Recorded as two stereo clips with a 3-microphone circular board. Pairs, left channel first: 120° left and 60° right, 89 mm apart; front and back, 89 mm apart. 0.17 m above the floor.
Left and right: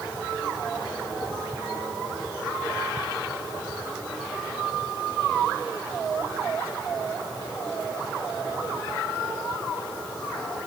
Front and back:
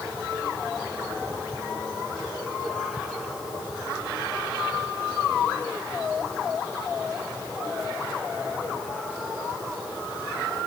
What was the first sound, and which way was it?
Only background noise.